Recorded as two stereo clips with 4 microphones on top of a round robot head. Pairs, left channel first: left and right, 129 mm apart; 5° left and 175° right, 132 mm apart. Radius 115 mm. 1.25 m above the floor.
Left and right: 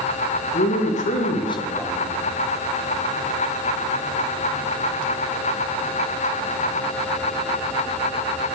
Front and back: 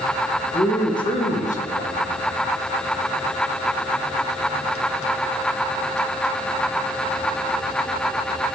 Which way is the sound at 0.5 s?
70° left.